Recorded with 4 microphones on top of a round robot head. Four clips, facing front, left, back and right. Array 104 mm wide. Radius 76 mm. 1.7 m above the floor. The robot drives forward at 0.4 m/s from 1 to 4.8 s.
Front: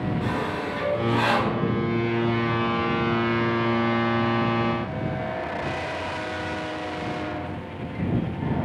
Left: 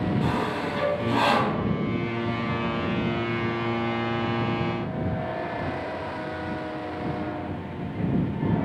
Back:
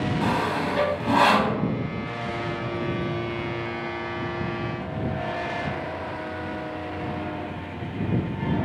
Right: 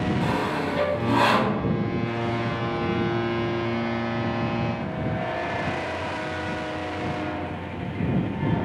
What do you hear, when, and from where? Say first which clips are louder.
0.2 s sawing: right 1 dB, back 3 dB; 175° right, 0.6 m